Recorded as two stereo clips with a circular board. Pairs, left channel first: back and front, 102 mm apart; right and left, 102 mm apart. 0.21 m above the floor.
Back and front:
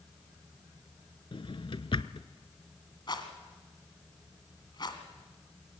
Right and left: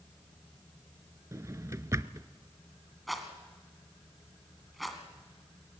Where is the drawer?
150° left, 0.6 m.